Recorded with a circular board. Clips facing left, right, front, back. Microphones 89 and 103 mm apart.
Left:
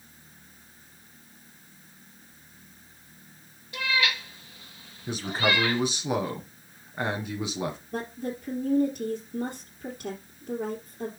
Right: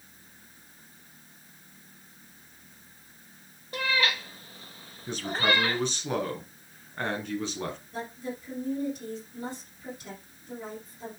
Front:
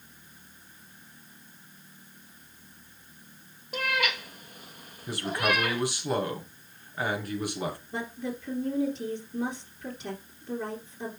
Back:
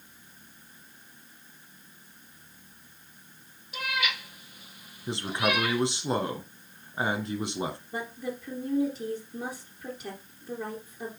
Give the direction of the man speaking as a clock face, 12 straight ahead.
7 o'clock.